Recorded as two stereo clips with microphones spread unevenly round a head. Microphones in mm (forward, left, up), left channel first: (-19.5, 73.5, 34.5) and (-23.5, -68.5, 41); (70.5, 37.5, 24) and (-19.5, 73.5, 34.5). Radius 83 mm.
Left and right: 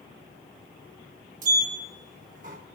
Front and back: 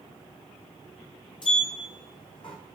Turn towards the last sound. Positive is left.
turn(degrees=-75)